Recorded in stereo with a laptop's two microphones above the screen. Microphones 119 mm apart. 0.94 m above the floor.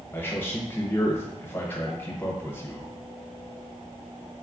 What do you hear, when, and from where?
0.1 s a man speaking: 20° left (ahead or behind), 0.7 m